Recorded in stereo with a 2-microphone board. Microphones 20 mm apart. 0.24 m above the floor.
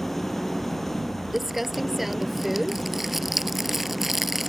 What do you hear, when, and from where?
0.0 s an engine running: 10° left (ahead or behind)
1.3 s crumpling: 10° right (ahead or behind)